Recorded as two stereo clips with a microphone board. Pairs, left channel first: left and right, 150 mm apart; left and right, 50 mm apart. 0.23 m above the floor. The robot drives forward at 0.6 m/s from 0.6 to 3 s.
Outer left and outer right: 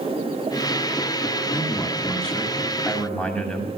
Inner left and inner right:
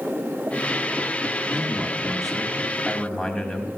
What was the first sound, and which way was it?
A man speaking, 5° left (ahead or behind).